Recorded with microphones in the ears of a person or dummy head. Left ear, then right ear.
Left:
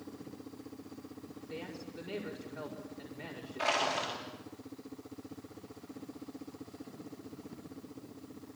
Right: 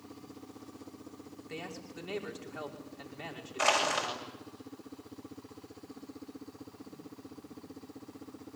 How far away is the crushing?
About 8.5 m.